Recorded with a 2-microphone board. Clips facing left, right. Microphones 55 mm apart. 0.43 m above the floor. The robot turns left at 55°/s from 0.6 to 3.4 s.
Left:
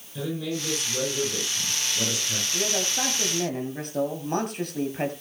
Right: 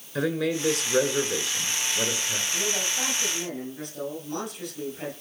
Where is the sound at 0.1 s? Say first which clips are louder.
Right 4 dB; 75° right, 5.5 m; by 2.4 s 175° right, 5.5 m.